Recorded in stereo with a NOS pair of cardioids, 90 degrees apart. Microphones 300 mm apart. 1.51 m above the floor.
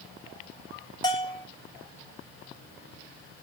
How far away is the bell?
About 1.2 m.